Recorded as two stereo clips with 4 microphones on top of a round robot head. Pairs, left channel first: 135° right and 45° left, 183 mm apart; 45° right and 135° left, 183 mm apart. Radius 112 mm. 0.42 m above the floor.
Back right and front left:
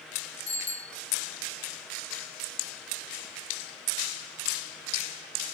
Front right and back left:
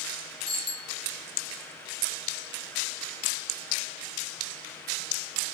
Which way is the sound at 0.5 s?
110° right.